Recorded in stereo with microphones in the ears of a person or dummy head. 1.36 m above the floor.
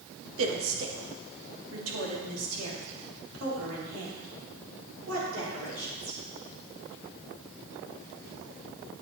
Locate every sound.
0.4 s a woman speaking: 75° right (ahead or behind), 1.6 m; by 6.2 s 90° right, 4.5 m